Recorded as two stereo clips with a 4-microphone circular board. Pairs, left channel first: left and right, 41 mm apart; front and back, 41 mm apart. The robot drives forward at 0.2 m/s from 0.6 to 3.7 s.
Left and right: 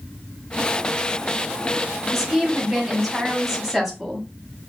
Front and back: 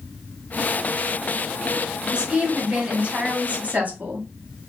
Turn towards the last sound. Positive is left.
turn(degrees=180)